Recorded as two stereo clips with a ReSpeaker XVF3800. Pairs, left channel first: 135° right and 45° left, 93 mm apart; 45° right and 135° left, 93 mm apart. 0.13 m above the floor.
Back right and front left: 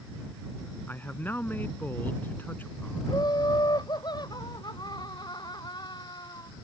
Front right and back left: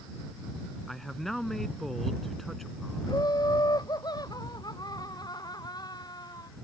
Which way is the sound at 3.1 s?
90° right.